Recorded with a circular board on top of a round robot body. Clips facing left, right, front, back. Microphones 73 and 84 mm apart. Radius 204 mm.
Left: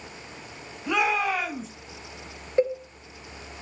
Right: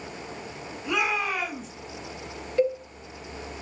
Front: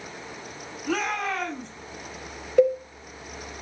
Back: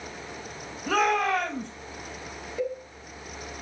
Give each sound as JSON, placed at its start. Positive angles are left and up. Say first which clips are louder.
{"t": 0.8, "sound": "a shout", "louder": "left 3 dB, back 4 dB", "azimuth_deg": 145, "distance_m": 4.5}
{"t": 2.6, "sound": "a cowbell", "louder": "even, front 12 dB", "azimuth_deg": 25, "distance_m": 1.7}